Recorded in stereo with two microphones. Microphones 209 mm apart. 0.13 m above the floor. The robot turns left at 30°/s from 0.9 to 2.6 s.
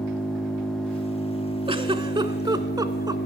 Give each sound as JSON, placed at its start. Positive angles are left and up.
{"t": 0.0, "sound": "an engine running", "azimuth_deg": 175, "distance_m": 4.0}
{"t": 1.7, "sound": "a giggle", "side_deg": -25, "distance_m": 0.7}